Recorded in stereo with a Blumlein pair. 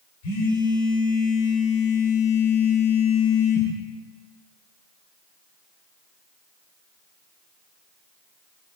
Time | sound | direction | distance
0.2 | a phone buzzing | 45° left | 2.0 m